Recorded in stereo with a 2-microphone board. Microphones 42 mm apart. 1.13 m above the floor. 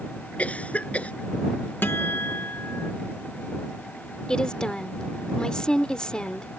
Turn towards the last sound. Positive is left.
turn(degrees=20)  # may be behind; listen again after turning